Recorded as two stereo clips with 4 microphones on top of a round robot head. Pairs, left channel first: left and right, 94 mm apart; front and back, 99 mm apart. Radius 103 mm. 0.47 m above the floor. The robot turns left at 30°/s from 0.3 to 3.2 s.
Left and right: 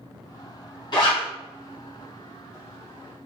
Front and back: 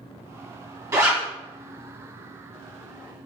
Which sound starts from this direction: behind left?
A zipper, at 0.9 s.